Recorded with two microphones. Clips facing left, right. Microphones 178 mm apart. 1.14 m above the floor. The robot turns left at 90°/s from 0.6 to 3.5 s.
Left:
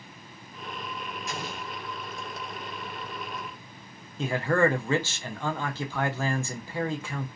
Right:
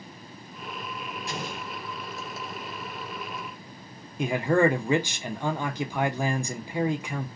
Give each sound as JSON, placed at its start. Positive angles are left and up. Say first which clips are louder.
{"t": 1.3, "sound": "an explosion", "louder": "right 2 dB", "azimuth_deg": -35, "distance_m": 1.0}
{"t": 4.2, "sound": "a man speaking", "louder": "right 2 dB", "side_deg": -15, "distance_m": 0.5}